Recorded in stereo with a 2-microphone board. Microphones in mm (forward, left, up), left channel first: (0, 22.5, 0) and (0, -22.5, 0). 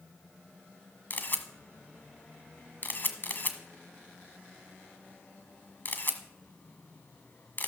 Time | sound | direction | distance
1.1 | a camera shutter | 45° left (ahead or behind) | 1.4 m